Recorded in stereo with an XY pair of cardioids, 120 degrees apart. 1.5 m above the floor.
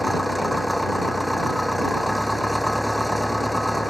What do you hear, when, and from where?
0.0 s an engine running: straight ahead